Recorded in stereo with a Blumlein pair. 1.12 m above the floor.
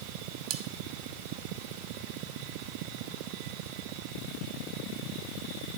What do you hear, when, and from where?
0.5 s cutlery clinking: 40° right, 0.7 m